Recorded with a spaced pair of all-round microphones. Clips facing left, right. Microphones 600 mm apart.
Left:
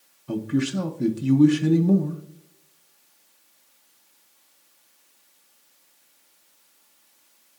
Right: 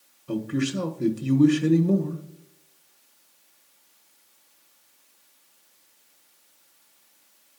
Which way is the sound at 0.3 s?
15° left (ahead or behind).